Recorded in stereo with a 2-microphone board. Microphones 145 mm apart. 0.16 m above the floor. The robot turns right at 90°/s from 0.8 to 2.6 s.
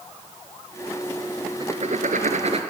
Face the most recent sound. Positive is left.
turn(degrees=-50)